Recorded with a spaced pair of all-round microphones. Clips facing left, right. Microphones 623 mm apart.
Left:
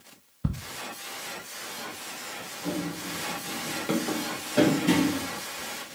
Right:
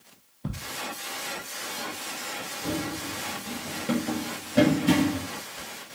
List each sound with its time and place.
0.4 s ticking: 40° left (ahead or behind), 0.7 m
2.6 s running footsteps: 55° right (ahead or behind), 2.5 m; by 5.3 s 10° right (ahead or behind), 1.6 m